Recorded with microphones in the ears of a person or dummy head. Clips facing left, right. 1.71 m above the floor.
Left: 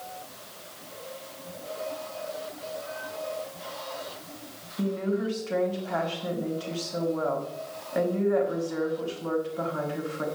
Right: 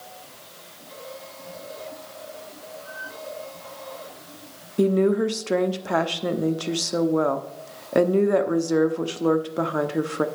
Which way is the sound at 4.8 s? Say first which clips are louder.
Right 9 dB; 75° right (ahead or behind).